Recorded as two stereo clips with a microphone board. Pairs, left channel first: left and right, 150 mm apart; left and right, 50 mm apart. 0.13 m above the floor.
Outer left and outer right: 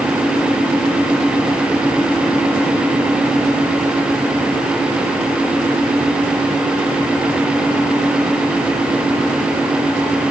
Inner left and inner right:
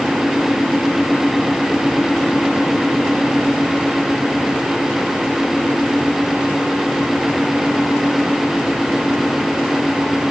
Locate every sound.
Only background noise.